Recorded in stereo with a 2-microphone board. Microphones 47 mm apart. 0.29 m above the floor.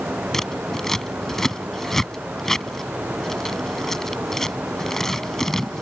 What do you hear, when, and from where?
0.3 s scissors: 10° left (ahead or behind)